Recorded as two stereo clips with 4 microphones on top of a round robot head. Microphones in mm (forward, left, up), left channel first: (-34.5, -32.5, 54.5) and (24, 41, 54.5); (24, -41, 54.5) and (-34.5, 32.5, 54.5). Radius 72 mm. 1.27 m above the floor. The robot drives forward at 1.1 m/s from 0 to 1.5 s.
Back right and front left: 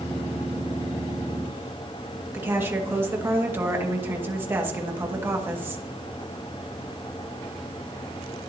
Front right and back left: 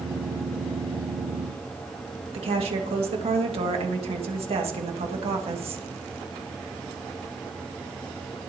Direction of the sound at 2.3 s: 120° left.